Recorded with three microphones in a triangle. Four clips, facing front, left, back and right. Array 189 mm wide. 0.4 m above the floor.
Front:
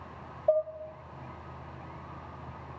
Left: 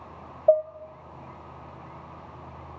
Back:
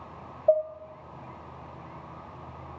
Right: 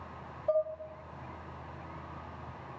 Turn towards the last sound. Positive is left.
turn(degrees=100)